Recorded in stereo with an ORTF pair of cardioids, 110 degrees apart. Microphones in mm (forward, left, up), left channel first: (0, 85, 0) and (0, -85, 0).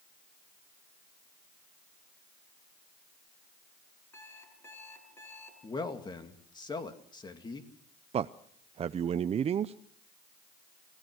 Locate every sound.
4.1 s an alarm clock: 15° left, 6 m
5.6 s a man speaking: 25° left, 2.5 m
8.1 s a man speaking: 40° right, 0.6 m